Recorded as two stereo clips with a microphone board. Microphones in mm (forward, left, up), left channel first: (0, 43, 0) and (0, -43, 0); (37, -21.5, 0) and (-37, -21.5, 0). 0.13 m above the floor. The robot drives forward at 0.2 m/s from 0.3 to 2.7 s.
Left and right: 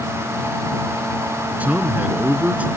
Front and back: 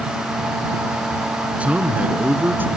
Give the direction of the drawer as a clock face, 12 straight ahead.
I don't hear a drawer.